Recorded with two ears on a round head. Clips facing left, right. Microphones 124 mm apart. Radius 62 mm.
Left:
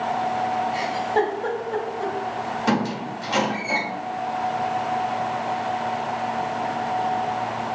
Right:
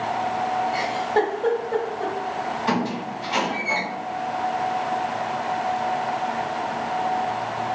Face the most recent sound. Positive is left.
turn(degrees=65)  # may be behind; listen again after turning